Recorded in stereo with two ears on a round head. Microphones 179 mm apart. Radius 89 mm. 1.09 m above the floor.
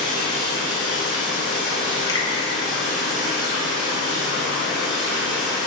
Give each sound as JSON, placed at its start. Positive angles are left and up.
{"t": 0.0, "sound": "running water", "side_deg": -40, "distance_m": 3.0}
{"t": 2.1, "sound": "a finger snap", "side_deg": 15, "distance_m": 1.3}